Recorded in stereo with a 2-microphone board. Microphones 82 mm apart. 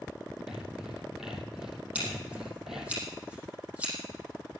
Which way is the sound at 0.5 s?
5° right (ahead or behind).